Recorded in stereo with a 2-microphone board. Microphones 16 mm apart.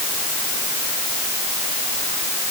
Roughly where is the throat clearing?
I don't hear throat clearing.